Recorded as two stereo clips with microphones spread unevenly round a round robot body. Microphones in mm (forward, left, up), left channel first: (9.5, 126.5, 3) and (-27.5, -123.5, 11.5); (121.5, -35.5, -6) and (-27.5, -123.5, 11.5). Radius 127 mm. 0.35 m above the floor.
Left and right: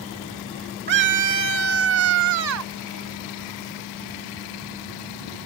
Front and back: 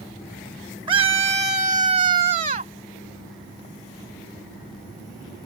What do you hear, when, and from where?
0.9 s a scream: 95° right; by 2.7 s 110° right